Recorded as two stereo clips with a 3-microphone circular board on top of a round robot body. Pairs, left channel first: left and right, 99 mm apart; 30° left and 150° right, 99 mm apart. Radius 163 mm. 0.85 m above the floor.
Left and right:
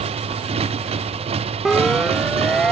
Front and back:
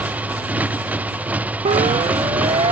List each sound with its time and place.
0.0 s a motorcycle: 75° right
1.6 s a siren: straight behind